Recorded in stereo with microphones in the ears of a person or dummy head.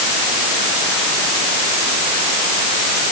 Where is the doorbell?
I don't hear a doorbell.